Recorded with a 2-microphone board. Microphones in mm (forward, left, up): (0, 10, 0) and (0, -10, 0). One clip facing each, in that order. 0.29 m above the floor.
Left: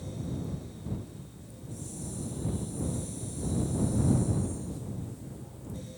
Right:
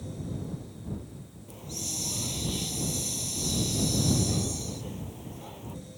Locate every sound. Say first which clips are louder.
1.5 s a hiss: right 9 dB; 75° right (ahead or behind)